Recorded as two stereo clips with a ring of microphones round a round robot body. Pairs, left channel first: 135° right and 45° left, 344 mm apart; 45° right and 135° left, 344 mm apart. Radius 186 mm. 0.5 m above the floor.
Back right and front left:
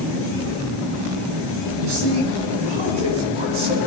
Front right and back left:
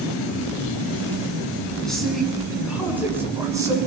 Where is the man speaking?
45° left, 6.5 m; by 3.8 s 55° left, 7 m.